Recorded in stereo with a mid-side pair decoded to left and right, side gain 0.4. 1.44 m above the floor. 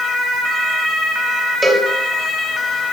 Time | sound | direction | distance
1.6 | a cowbell | 5° right | 7.5 m